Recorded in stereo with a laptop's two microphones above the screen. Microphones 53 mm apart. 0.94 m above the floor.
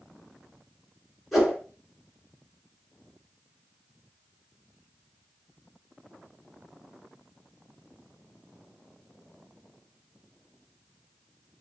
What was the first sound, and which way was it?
A whoosh, centre (ahead or behind).